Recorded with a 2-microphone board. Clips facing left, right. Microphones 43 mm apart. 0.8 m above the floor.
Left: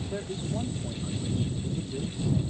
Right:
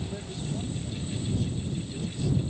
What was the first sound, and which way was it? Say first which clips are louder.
A man speaking: left 2 dB; 40° left (ahead or behind).